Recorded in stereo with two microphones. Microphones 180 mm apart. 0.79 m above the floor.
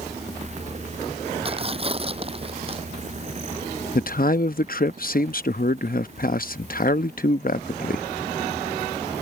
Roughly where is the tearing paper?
Right.